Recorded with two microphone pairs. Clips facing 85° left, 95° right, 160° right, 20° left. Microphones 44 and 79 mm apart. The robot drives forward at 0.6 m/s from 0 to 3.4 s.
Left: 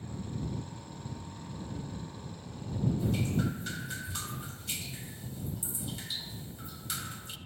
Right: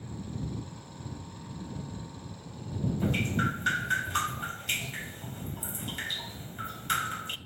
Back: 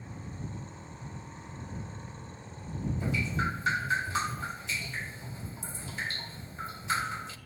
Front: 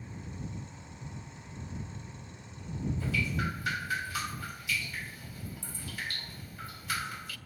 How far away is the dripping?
About 2.5 m.